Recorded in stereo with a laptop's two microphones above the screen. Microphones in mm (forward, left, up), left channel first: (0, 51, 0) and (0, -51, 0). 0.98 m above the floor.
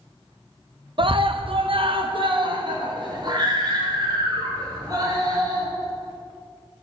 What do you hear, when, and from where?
1.0 s a scream: 55° right (ahead or behind), 0.6 m; by 5.7 s 40° right (ahead or behind), 2.5 m